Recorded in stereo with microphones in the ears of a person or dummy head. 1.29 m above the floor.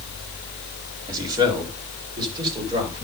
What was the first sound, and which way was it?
A man speaking, 20° right (ahead or behind).